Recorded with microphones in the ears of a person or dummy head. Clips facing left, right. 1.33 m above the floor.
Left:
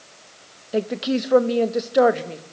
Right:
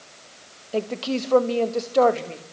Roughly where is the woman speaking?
Centre.